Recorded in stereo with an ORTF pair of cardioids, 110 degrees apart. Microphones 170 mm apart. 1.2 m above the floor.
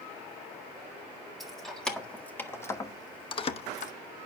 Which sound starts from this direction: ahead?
Keys jangling, at 1.4 s.